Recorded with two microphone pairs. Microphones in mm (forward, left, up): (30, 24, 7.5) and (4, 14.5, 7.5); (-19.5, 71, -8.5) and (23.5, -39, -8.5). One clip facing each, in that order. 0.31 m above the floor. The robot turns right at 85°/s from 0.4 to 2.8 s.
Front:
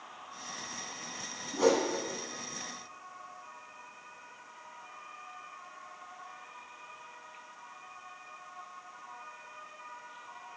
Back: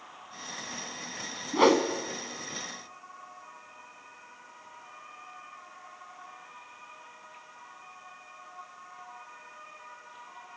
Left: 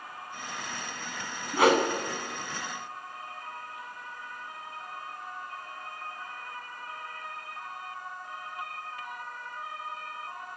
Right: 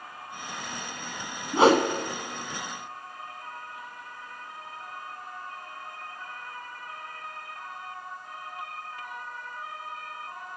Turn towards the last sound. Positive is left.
turn(degrees=-30)